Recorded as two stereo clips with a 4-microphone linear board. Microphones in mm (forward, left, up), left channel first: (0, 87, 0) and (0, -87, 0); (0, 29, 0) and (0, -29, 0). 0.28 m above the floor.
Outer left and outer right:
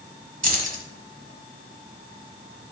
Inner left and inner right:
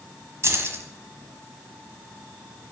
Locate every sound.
0.4 s keys jangling: 55° right (ahead or behind), 1.3 m